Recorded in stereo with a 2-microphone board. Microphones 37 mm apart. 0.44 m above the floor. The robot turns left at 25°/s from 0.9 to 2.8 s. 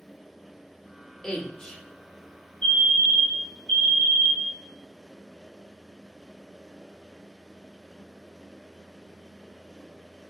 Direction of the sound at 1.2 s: 20° left (ahead or behind).